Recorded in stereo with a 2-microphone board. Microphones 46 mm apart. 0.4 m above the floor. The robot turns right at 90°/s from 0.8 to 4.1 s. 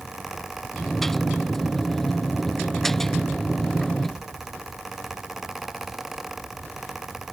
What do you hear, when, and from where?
Only background noise.